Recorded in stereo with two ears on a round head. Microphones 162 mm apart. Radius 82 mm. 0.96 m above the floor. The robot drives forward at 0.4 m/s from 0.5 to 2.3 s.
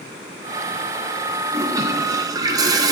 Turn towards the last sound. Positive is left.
turn(degrees=-20)  # may be behind; listen again after turning